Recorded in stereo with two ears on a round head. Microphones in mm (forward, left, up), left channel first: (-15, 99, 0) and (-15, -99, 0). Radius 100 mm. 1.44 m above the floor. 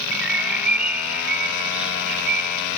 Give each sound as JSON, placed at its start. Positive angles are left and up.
{"t": 0.1, "sound": "a bird", "side_deg": -5}